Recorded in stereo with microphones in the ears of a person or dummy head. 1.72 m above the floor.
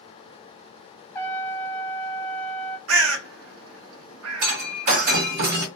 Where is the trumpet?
10° left (ahead or behind), 0.6 m.